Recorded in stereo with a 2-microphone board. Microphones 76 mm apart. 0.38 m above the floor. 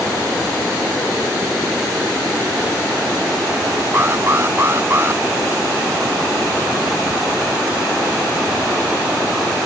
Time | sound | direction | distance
3.9 | an alarm | 30° right (ahead or behind) | ?